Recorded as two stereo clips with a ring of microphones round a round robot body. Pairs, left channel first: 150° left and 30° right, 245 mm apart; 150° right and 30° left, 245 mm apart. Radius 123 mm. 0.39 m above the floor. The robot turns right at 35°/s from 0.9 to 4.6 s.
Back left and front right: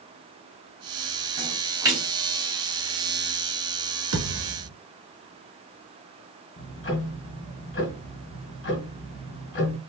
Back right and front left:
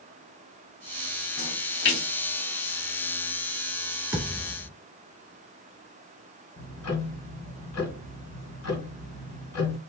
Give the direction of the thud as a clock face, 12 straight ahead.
2 o'clock.